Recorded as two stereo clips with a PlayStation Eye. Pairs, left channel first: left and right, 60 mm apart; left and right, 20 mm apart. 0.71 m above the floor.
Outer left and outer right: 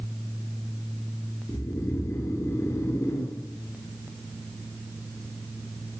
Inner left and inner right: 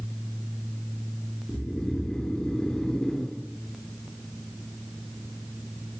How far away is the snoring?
About 2.5 m.